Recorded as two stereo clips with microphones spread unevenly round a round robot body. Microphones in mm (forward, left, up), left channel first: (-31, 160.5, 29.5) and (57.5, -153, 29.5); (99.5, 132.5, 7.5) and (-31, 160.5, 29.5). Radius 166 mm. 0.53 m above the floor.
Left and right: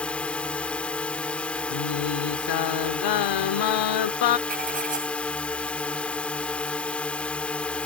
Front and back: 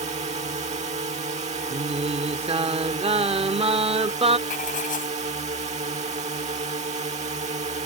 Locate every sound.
0.0 s a drone: 170° right
1.7 s singing: 115° left
4.5 s writing: 10° right